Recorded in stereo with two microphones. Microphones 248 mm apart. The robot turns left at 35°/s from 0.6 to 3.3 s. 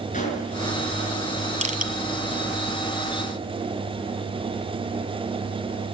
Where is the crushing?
30° right (ahead or behind), 1.5 m; by 1.9 s 40° right (ahead or behind), 1.5 m.